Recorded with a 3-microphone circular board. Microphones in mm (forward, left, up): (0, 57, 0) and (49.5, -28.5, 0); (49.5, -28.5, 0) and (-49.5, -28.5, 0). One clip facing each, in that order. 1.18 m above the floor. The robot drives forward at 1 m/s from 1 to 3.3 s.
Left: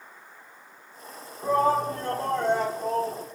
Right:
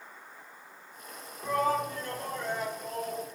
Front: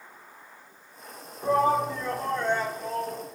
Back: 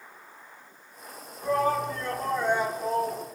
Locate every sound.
1.4 s a shout: 60° left, 1.6 m; by 3.3 s 125° left, 1.7 m